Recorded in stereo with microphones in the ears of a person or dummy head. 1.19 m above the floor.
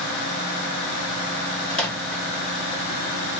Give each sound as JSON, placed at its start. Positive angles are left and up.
{"t": 1.7, "sound": "a microwave", "side_deg": 10, "distance_m": 0.8}